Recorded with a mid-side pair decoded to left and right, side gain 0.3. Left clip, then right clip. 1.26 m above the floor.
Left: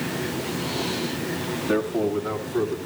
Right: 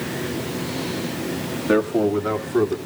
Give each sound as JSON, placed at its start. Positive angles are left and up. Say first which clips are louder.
{"t": 1.7, "sound": "a man speaking", "louder": "right 5 dB", "azimuth_deg": -50, "distance_m": 3.0}